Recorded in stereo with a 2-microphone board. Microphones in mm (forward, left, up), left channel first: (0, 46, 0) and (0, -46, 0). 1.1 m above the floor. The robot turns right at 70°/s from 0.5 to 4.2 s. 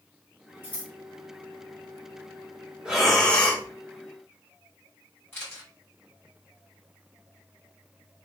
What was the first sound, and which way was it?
Scissors, 25° left (ahead or behind).